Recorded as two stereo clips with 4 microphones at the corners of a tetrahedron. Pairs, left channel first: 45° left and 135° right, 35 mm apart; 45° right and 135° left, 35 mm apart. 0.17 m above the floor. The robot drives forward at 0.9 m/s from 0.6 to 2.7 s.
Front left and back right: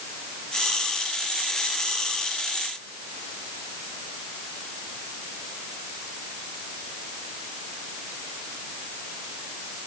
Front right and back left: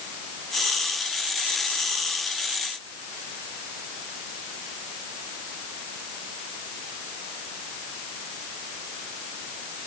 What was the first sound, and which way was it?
Only background noise.